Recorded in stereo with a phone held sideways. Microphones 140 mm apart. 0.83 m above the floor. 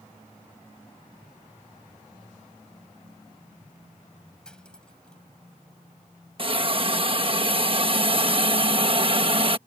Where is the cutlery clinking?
5° left (ahead or behind).